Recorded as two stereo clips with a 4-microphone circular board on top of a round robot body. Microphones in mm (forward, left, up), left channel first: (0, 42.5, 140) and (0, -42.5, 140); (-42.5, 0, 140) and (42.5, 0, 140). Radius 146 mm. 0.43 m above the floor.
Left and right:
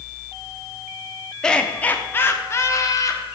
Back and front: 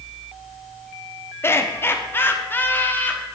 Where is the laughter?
165° left, 1.5 m; by 3.2 s 120° left, 1.9 m.